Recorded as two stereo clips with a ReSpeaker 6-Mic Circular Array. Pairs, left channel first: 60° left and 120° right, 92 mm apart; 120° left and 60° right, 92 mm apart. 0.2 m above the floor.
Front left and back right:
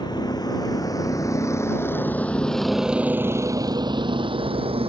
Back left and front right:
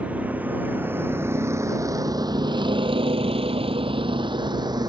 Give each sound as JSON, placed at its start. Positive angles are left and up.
{"t": 0.0, "sound": "a vehicle", "azimuth_deg": 15}